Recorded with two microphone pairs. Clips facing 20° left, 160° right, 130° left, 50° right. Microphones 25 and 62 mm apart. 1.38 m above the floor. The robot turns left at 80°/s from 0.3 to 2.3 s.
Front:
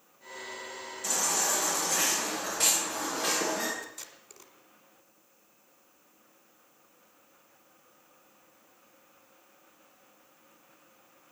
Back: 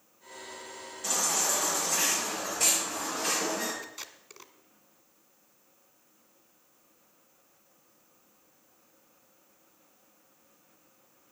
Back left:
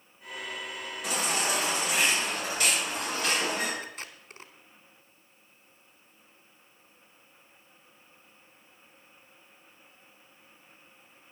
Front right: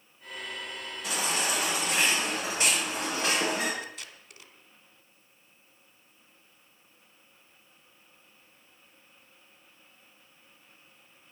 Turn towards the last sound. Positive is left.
turn(degrees=150)